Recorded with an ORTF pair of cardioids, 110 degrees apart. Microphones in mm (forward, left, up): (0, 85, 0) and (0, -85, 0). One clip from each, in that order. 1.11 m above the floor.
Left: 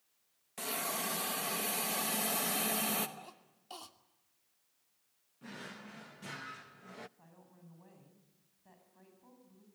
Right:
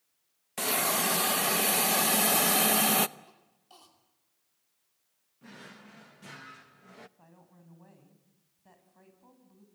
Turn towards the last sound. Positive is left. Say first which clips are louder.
# right 2 dB
turn(degrees=-20)